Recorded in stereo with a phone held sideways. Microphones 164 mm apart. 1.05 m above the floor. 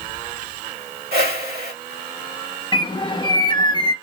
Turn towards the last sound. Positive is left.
turn(degrees=25)  # may be behind; listen again after turning